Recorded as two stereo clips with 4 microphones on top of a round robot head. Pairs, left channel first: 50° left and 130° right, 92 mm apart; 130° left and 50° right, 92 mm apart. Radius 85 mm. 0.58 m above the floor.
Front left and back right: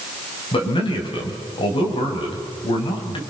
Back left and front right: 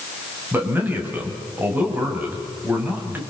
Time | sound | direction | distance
0.5 | a man speaking | 20° left | 4 m